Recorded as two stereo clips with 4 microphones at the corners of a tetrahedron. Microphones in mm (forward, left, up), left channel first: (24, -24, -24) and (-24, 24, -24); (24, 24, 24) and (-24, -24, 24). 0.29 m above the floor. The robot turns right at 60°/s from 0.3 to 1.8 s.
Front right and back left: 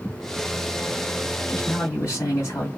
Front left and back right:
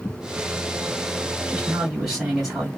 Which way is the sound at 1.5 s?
75° right.